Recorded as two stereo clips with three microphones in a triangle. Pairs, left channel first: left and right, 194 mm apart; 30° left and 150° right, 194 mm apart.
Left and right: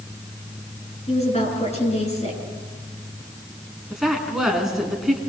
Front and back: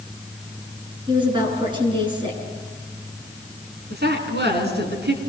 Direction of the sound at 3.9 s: Straight behind.